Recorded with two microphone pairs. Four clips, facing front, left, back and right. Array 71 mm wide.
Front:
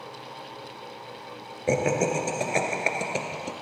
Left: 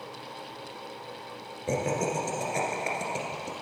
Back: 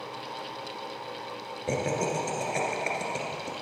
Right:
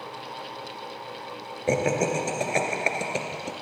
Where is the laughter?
55° right, 1.7 m.